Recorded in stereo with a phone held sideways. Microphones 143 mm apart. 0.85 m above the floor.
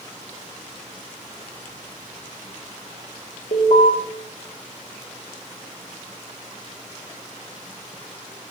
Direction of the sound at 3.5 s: 75° left (ahead or behind).